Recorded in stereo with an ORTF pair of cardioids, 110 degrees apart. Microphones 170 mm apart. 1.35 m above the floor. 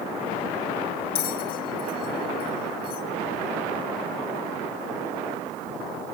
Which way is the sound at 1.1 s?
60° left.